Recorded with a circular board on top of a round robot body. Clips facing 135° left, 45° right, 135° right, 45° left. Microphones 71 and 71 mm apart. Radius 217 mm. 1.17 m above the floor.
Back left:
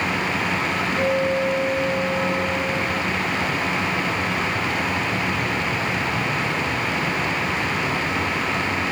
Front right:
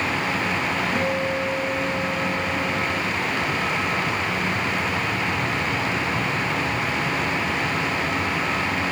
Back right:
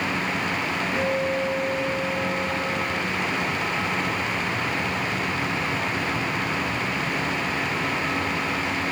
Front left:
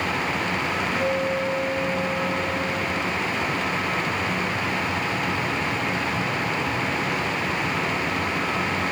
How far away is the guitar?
About 4.5 m.